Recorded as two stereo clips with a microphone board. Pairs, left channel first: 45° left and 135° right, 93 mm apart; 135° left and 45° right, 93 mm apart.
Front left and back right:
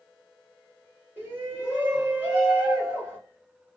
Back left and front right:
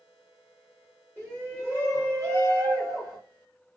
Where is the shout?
80° right, 2 m.